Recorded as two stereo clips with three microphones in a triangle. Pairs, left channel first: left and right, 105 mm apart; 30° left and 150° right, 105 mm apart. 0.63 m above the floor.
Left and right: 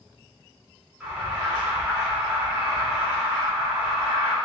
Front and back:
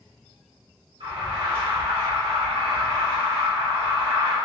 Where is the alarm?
170° right, 1.6 m.